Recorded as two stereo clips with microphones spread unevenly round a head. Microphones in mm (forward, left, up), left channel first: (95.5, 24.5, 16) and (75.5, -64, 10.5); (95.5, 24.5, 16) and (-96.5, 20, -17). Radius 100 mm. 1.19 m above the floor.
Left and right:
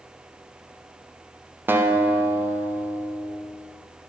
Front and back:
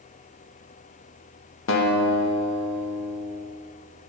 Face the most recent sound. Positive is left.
turn(degrees=-30)